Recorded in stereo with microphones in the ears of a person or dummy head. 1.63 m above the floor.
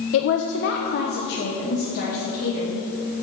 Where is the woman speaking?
80° left, 0.5 m; by 2.8 s 50° left (ahead or behind), 2 m.